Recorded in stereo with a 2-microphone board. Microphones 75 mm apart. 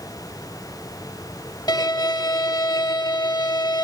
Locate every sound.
1.7 s a violin: 65° left (ahead or behind), 1.7 m